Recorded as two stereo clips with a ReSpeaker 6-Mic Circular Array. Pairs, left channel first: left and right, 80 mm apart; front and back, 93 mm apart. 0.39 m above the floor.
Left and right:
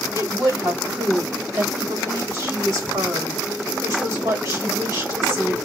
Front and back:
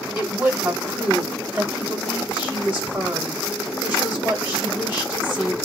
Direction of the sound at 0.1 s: 110° right.